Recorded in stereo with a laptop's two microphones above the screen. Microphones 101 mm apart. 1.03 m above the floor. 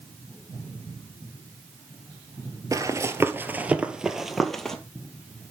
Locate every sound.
2.7 s running footsteps: 35° right (ahead or behind), 1.2 m; by 4.8 s 5° left (ahead or behind), 1.4 m